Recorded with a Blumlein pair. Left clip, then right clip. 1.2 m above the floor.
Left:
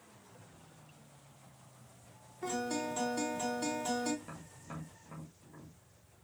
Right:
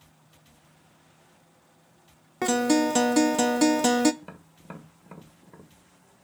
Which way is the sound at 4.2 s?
25° right.